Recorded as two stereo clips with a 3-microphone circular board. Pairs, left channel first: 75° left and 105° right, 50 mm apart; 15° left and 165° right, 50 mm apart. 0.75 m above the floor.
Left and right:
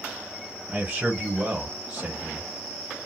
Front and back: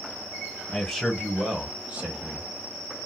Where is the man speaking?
55° right, 1.1 m; by 2.5 s 165° right, 1.2 m.